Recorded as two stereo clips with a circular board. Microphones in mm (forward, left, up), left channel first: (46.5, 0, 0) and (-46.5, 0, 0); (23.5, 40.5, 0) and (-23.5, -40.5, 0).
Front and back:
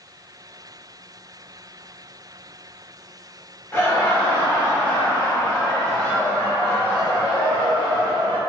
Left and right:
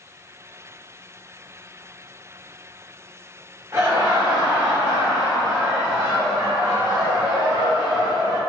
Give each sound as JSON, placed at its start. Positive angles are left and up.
{"t": 3.7, "sound": "laughter", "azimuth_deg": -65, "distance_m": 1.5}